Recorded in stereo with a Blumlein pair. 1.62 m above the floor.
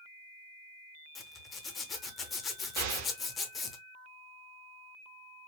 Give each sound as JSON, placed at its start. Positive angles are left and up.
{"t": 1.1, "sound": "a zipper", "azimuth_deg": 25, "distance_m": 0.8}
{"t": 2.8, "sound": "an explosion", "azimuth_deg": -55, "distance_m": 0.9}